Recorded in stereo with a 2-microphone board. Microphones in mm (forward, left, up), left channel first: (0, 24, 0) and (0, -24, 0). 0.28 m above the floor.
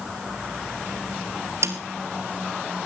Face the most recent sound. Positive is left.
turn(degrees=-70)  # may be behind; listen again after turning